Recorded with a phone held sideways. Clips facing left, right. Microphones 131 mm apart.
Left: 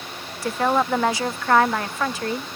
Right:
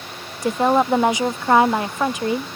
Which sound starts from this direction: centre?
A woman speaking, at 0.4 s.